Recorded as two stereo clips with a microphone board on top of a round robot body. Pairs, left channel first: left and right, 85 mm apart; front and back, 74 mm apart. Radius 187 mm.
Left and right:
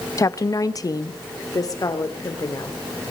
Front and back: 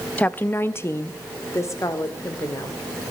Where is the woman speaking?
60° left, 1.1 m; by 2.8 s 45° left, 3.5 m.